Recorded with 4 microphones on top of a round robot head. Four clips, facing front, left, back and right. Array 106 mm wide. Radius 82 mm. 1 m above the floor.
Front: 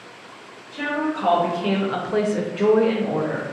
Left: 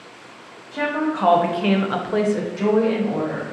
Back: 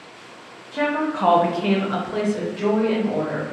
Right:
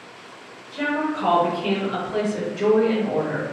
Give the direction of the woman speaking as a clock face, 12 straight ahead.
7 o'clock.